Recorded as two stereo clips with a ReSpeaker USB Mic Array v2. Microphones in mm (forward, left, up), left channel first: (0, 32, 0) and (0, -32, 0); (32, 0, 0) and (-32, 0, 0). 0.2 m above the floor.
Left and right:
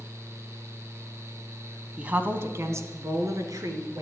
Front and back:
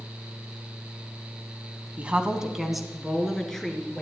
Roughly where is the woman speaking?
Behind right.